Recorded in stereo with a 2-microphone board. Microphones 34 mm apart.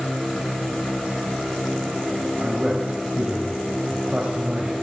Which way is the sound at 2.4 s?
25° right (ahead or behind).